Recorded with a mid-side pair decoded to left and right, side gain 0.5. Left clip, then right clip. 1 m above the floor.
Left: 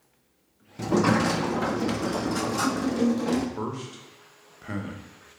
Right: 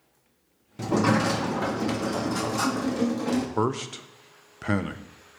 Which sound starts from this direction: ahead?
A sliding door, at 0.8 s.